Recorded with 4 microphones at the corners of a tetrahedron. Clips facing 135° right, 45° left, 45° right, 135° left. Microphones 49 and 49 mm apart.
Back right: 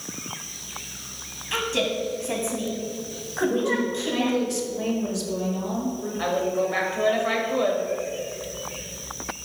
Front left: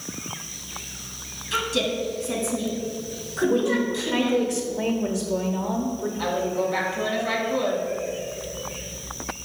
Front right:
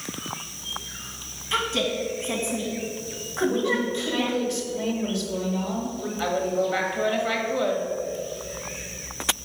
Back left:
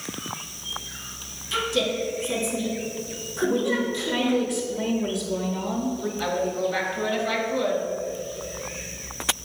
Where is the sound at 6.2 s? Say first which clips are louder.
Back right 2 dB, front right 2 dB; 95° right, 1.5 m.